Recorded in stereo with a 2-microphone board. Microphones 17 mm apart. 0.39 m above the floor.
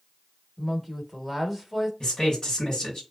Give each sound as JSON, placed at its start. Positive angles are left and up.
{"t": 0.6, "sound": "a woman speaking", "side_deg": -5, "distance_m": 0.9}
{"t": 2.0, "sound": "a man speaking", "side_deg": 45, "distance_m": 1.8}